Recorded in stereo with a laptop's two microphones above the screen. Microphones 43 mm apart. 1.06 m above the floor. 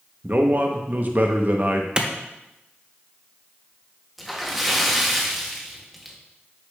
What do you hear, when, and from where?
0.2 s a man speaking: 45° right (ahead or behind), 0.7 m
2.0 s a clap: 20° right (ahead or behind), 0.8 m
4.2 s a splash: centre (ahead or behind), 0.7 m